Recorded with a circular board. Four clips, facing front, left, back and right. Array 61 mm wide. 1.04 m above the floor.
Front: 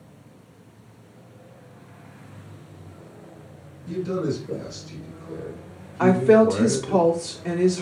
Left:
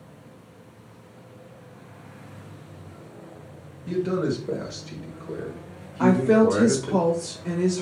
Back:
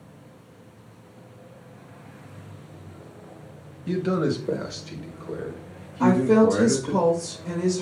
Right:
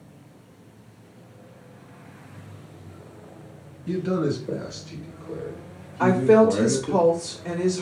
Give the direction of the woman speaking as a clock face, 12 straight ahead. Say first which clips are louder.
Right 2 dB, front 2 dB; 12 o'clock.